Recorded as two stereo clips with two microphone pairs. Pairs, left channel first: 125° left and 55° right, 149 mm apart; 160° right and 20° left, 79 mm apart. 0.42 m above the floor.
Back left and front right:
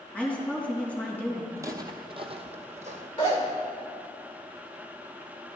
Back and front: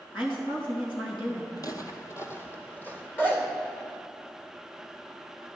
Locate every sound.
0.1 s a woman speaking: 155° right, 3.5 m
1.6 s footsteps: 125° right, 0.9 m; by 3.1 s 85° right, 1.3 m
3.2 s a zipper: 160° left, 1.7 m